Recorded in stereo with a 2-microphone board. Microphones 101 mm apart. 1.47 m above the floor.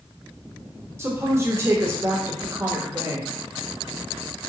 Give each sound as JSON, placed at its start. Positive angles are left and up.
{"t": 1.0, "sound": "a woman speaking", "side_deg": -25, "distance_m": 0.9}